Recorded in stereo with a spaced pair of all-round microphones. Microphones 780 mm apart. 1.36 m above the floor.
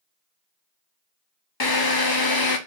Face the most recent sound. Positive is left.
turn(degrees=30)  # may be behind; listen again after turning